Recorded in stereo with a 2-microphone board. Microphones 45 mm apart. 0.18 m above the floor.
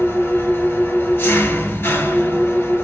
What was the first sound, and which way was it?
An engine running, 60° left (ahead or behind).